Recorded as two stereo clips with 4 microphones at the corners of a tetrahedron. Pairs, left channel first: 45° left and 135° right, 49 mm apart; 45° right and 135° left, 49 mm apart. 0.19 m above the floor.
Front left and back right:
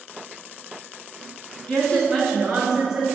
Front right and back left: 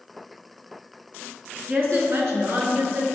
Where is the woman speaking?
100° left, 2 m; by 3.0 s 155° left, 3 m.